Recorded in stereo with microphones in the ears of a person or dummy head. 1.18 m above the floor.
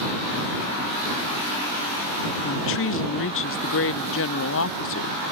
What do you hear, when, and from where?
2.4 s a woman speaking: 60° left (ahead or behind)